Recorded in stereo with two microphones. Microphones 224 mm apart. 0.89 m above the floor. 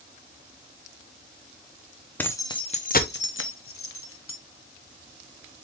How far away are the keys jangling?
About 0.7 m.